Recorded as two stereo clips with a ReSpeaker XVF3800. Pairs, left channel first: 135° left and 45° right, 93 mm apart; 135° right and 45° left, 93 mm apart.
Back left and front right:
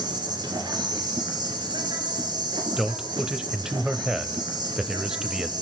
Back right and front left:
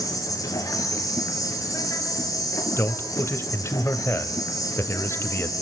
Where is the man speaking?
120° right, 1.1 m.